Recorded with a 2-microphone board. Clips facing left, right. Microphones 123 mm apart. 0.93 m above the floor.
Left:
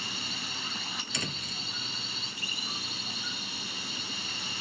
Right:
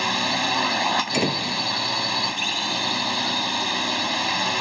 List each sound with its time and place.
0.0 s a drone: 80° right
1.1 s a door slam: 60° right (ahead or behind)